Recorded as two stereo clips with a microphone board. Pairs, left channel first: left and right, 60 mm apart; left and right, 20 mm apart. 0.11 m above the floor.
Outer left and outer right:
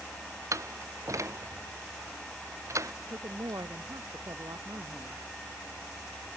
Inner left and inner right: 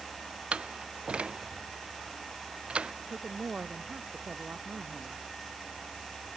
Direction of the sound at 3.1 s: 75° right (ahead or behind).